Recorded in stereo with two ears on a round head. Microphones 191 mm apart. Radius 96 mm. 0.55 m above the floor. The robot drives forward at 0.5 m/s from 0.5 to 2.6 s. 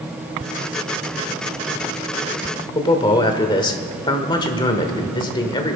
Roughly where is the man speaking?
Left.